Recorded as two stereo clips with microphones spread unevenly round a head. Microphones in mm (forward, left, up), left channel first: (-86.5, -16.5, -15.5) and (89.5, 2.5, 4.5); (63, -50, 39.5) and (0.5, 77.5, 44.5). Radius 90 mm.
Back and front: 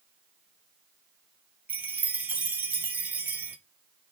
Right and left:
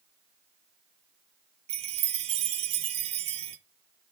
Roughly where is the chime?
Left.